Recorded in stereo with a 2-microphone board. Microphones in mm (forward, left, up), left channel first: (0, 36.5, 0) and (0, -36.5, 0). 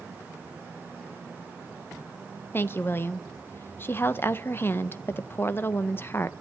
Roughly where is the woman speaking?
Left.